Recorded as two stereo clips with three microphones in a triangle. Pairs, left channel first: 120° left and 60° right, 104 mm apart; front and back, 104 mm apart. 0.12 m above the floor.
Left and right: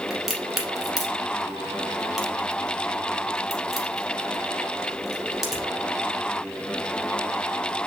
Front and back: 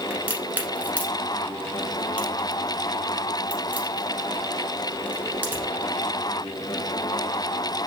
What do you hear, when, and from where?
0.1 s a crack: 145° right, 1.3 m